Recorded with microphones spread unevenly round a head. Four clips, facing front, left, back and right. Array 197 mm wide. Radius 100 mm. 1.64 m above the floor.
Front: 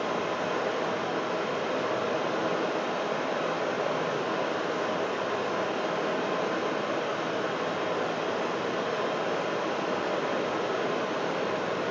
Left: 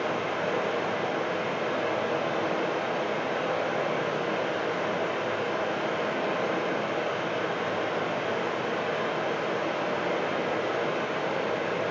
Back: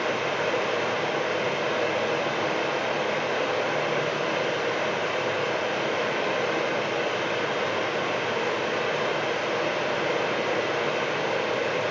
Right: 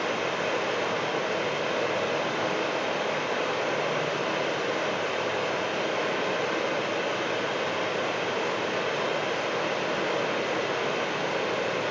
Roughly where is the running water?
Behind.